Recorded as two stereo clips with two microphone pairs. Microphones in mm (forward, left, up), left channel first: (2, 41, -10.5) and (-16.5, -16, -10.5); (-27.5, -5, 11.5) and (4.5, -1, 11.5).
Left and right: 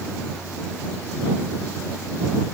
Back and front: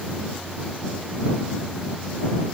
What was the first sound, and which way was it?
Only background noise.